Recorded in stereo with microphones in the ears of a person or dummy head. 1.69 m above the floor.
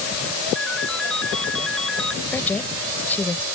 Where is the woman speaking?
10° left (ahead or behind).